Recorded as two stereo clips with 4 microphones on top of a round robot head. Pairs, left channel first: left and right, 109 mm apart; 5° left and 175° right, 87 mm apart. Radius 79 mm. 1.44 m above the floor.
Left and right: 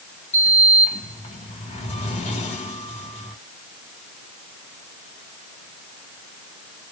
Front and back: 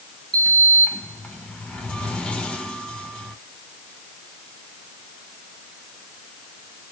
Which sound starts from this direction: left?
A sliding door, at 0.3 s.